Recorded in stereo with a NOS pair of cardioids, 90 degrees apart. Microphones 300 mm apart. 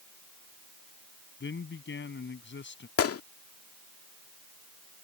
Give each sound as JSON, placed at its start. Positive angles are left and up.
{"t": 1.4, "sound": "a man speaking", "azimuth_deg": 40}
{"t": 3.0, "sound": "a gunshot", "azimuth_deg": 50}